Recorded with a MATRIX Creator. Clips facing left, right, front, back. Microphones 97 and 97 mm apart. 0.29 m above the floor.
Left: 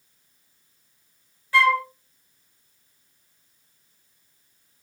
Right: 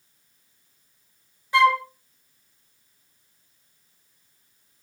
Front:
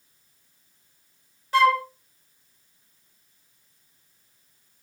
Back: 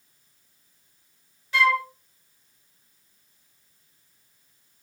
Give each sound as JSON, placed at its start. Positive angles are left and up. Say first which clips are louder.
{"t": 1.5, "sound": "a flute", "louder": "right 2 dB, front 4 dB", "azimuth_deg": -25, "distance_m": 0.5}